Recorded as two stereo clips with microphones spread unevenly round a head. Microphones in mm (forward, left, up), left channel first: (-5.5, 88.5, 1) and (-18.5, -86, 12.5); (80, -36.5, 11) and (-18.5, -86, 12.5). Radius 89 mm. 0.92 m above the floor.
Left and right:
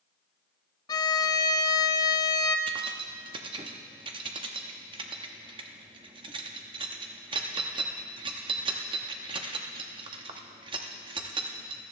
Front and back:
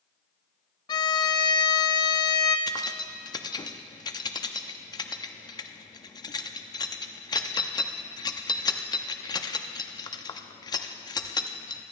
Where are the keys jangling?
30° right, 0.8 m.